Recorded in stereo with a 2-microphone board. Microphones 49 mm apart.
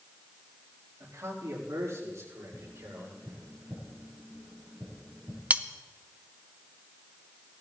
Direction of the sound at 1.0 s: 80° right.